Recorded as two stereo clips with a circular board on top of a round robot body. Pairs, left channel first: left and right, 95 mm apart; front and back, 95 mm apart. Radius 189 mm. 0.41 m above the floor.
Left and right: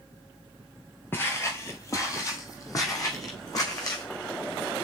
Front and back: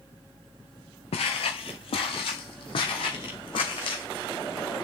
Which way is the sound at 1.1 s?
20° left.